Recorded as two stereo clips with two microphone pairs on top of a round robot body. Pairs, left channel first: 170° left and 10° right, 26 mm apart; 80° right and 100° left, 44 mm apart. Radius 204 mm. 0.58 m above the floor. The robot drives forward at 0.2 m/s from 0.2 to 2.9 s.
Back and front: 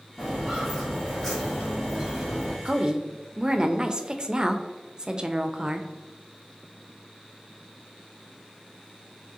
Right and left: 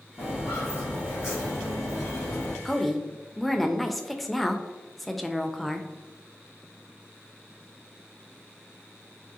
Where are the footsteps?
120° right, 1.1 m; by 2.5 s 95° right, 2.0 m.